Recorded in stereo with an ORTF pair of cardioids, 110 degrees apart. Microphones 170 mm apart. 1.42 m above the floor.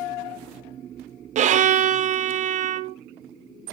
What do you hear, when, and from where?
1.4 s a violin: 50° right, 0.6 m